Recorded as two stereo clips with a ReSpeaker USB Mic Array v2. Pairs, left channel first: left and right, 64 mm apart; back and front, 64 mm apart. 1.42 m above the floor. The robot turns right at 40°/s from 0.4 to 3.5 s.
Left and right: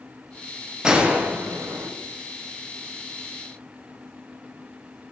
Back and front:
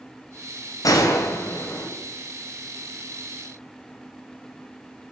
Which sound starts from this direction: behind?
A gunshot, at 0.8 s.